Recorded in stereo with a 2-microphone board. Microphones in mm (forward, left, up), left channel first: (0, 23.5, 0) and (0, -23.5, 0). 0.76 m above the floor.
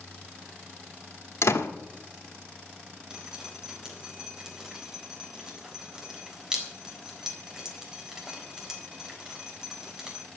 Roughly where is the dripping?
Centre.